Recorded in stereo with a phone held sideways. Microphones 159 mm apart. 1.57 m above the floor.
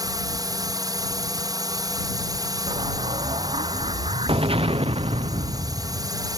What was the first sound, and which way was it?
A drone, 25° right (ahead or behind).